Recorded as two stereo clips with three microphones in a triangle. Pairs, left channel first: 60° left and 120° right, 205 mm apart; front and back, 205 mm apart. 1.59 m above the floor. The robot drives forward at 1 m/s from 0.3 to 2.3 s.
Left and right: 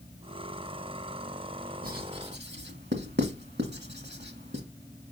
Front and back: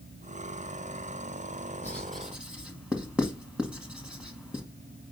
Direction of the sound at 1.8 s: 80° right.